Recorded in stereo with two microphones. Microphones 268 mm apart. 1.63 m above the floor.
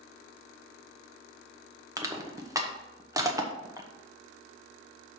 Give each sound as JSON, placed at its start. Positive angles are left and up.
{"t": 2.0, "sound": "crushing", "side_deg": -10, "distance_m": 0.9}